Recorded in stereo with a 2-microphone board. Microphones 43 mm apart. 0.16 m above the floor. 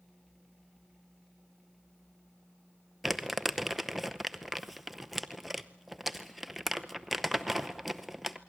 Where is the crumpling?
5° right (ahead or behind), 0.7 m.